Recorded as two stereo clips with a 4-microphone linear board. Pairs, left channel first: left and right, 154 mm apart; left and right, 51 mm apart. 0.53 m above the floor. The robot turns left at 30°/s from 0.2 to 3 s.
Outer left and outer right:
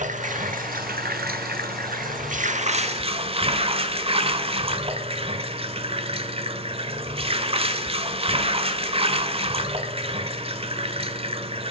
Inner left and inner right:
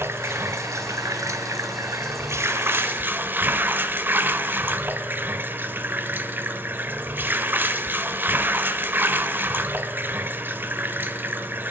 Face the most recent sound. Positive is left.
turn(degrees=-140)